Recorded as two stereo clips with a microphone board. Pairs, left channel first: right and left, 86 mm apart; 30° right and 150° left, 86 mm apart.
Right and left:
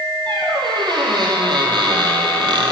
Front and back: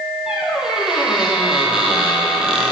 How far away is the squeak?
About 1.8 m.